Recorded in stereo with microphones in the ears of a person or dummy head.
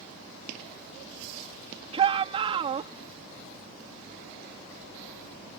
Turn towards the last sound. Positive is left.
turn(degrees=-40)  # may be behind; listen again after turning